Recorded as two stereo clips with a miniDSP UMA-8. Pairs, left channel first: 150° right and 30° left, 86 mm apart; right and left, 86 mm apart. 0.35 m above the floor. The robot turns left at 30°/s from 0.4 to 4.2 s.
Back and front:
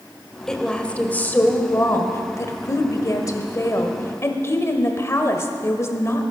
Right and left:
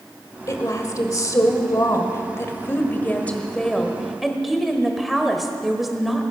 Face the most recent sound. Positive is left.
turn(degrees=175)